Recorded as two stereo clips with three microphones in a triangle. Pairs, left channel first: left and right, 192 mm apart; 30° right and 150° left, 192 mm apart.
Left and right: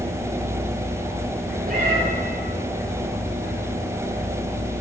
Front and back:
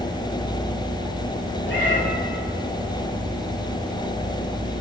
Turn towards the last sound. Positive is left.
turn(degrees=-50)